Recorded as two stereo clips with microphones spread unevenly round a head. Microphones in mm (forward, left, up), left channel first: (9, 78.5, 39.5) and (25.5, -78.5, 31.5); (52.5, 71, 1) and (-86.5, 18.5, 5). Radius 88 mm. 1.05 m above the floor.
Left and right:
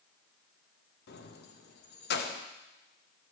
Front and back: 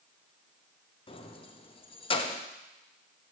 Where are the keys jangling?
75° left, 1.0 m.